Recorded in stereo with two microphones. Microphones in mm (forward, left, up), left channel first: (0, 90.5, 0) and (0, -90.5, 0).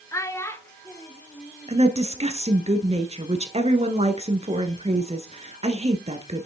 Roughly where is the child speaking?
Centre.